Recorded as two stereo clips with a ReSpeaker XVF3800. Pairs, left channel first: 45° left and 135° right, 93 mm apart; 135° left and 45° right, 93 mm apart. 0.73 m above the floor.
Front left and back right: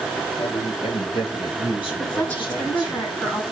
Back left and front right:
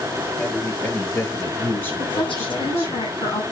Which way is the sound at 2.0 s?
110° left.